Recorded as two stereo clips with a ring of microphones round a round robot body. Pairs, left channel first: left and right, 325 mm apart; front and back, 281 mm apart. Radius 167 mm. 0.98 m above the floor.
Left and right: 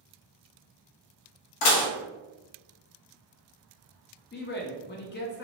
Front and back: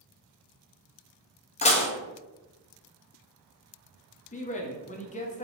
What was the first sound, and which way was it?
Dishes clattering, 65° left.